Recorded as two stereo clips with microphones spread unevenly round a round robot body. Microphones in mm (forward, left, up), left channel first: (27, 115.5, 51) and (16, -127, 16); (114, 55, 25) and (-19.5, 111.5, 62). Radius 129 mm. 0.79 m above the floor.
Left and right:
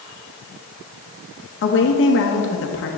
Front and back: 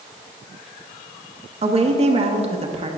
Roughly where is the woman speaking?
Left.